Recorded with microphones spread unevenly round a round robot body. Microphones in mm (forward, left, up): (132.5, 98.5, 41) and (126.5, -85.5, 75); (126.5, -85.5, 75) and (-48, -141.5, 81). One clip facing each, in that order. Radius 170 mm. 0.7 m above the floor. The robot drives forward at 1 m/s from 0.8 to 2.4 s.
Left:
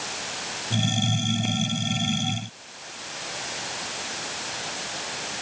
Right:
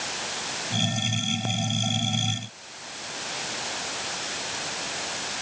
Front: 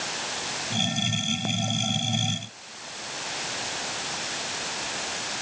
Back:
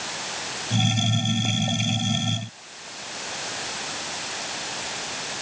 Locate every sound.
Only background noise.